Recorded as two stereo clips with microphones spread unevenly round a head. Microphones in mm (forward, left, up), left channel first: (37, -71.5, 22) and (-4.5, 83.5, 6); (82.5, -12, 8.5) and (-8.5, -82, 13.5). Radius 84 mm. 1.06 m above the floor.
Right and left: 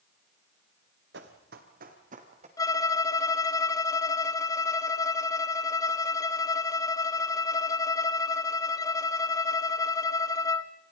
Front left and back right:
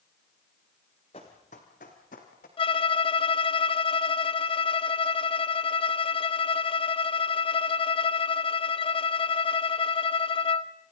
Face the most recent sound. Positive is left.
turn(degrees=-5)